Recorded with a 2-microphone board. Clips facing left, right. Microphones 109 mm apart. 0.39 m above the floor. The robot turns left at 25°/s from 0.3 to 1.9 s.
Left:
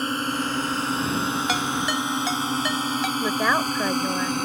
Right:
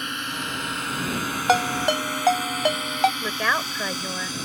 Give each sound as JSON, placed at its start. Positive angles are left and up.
{"t": 0.0, "sound": "a drone", "side_deg": 35}
{"t": 1.5, "sound": "a ringtone", "side_deg": -50}
{"t": 3.2, "sound": "a woman speaking", "side_deg": 15}